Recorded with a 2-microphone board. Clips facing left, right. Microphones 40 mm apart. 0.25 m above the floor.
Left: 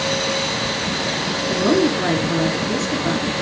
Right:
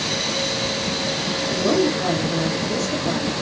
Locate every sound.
1.5 s a woman speaking: 55° left (ahead or behind), 3.5 m